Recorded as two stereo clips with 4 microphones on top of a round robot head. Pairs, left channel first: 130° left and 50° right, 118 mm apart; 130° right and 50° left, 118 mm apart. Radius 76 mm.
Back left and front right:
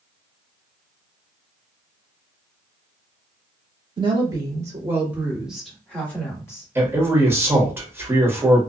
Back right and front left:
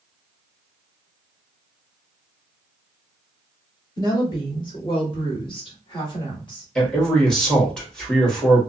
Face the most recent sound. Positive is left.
turn(degrees=-55)